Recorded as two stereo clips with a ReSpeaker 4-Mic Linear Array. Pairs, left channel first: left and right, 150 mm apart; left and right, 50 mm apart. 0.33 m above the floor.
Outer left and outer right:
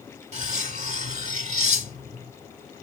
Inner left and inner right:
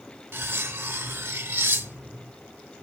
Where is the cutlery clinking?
50° right (ahead or behind), 0.8 m.